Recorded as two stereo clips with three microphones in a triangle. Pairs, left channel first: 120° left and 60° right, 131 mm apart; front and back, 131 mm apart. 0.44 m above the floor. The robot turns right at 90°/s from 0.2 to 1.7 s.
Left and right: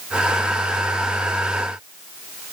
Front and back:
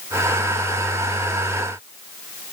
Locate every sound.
Only background noise.